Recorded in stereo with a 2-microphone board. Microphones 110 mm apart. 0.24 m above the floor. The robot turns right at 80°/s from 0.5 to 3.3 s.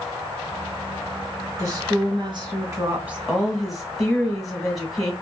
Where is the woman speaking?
135° right, 1.3 m; by 5.1 s straight ahead, 1.3 m.